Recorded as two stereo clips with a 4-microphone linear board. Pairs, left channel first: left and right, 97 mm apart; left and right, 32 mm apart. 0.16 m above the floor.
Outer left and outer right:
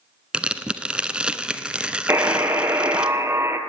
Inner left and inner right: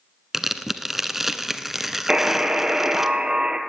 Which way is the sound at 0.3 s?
10° right (ahead or behind).